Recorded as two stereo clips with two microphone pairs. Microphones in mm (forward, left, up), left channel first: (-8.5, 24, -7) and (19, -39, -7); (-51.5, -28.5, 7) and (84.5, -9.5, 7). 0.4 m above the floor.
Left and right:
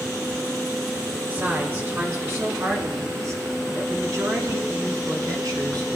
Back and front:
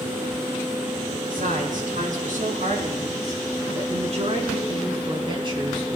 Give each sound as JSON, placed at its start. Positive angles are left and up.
{"t": 1.3, "sound": "a woman speaking", "azimuth_deg": -5, "distance_m": 5.0}